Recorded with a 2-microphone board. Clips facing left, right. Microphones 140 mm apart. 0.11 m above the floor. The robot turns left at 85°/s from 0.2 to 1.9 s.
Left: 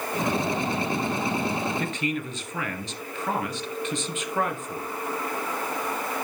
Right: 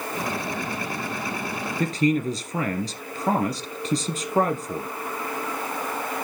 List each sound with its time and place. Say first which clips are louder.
1.8 s a man speaking: right 7 dB; 40° right (ahead or behind), 2 m; by 4.9 s 35° right (ahead or behind), 2 m